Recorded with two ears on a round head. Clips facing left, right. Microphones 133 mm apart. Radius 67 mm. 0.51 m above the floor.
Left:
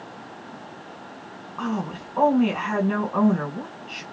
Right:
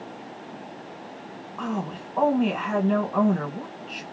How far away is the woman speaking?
About 2 m.